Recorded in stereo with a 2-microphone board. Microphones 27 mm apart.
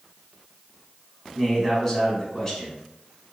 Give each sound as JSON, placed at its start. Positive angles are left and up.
{"t": 1.4, "sound": "a man speaking", "side_deg": 15, "distance_m": 1.5}